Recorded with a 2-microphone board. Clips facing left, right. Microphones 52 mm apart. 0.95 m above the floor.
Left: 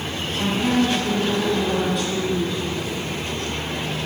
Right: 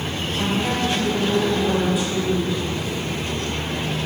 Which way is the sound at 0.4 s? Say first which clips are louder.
Left 3 dB; 5° right (ahead or behind).